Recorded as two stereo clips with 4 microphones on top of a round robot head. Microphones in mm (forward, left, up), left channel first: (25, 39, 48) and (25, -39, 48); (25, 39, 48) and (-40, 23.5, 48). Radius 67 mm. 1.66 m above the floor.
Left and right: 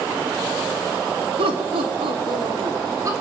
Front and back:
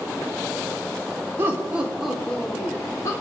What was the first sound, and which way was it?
Laughter, 100° right.